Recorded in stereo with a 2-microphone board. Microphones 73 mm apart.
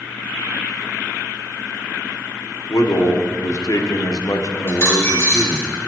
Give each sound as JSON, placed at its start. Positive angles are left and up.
{"t": 2.7, "sound": "a man speaking", "side_deg": 50, "distance_m": 0.8}
{"t": 4.7, "sound": "a dropped coin", "side_deg": 35, "distance_m": 3.0}